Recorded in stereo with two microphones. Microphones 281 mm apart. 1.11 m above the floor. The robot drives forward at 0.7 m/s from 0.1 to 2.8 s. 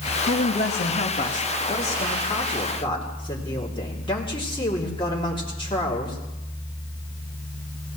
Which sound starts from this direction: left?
A man speaking, at 0.3 s.